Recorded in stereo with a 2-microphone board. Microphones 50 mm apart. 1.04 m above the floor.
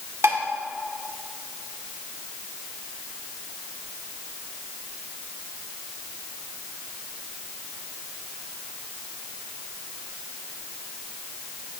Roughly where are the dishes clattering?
Right.